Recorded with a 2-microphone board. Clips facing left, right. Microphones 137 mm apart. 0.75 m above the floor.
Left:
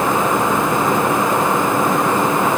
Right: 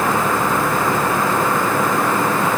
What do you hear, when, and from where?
Only background noise.